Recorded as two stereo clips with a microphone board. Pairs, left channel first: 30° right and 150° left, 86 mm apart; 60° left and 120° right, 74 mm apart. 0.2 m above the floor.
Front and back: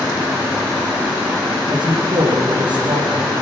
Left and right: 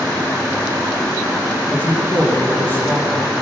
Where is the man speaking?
125° left, 9 m.